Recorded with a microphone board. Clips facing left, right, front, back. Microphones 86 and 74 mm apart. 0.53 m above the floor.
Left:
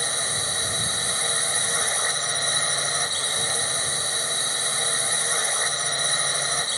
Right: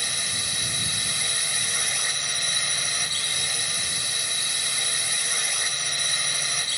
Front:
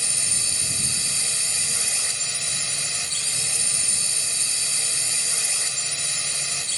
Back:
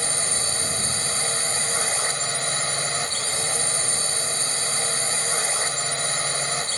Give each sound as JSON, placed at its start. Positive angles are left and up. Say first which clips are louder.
{"t": 0.0, "sound": "a drone", "louder": "left 5 dB, back 7 dB", "azimuth_deg": 145}